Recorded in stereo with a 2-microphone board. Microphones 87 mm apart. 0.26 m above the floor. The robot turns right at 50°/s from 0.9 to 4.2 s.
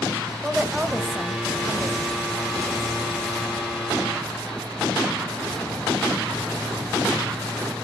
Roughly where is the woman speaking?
Centre.